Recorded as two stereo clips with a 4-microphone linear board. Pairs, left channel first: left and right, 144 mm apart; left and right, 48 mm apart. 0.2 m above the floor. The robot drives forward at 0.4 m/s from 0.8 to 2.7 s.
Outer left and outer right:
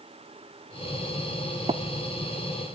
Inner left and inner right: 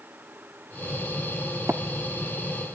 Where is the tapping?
45° right (ahead or behind), 0.6 m.